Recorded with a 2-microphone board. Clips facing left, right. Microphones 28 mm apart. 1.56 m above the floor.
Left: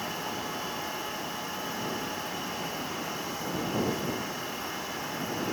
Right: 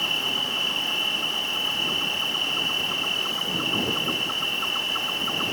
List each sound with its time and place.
0.0 s an insect: 75° right (ahead or behind)